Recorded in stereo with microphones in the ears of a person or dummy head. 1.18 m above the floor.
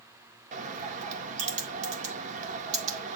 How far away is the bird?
About 1.7 m.